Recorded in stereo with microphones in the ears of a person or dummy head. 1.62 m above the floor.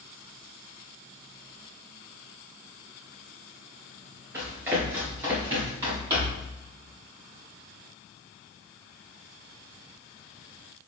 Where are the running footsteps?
15° right (ahead or behind), 1.8 m.